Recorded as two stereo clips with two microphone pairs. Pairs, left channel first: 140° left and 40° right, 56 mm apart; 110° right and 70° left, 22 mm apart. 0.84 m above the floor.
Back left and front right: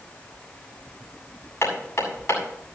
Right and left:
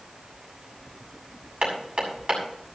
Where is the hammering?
110° left, 6.5 m.